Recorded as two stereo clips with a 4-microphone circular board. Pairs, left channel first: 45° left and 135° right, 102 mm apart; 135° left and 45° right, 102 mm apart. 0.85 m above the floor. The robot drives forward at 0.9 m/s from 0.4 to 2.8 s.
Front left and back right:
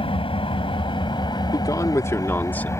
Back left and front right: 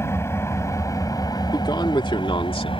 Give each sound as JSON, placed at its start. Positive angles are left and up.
{"t": 0.0, "sound": "an engine running", "azimuth_deg": 75}
{"t": 1.5, "sound": "a man speaking", "azimuth_deg": 95}